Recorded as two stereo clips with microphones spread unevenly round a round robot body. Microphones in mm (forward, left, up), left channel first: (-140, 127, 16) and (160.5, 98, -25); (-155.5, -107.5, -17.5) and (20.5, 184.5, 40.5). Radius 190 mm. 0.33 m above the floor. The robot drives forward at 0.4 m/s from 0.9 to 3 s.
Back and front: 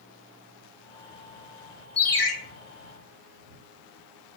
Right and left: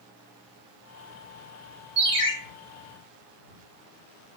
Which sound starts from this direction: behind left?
A ringtone, at 2.0 s.